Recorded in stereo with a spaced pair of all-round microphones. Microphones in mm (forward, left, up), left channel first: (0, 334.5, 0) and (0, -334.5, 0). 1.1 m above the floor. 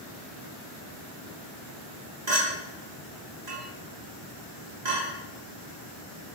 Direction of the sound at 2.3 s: 85° right.